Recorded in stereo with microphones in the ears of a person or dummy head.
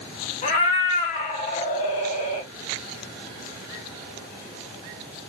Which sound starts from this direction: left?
A cat meowing, at 0.4 s.